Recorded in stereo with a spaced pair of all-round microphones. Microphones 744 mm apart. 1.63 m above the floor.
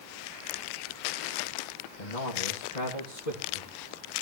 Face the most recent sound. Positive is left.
turn(degrees=65)  # may be behind; listen again after turning